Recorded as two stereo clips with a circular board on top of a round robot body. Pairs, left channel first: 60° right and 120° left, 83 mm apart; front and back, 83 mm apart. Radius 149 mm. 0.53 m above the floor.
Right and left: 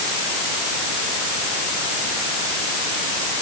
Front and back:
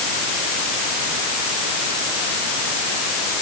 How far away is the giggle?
No giggle in this recording.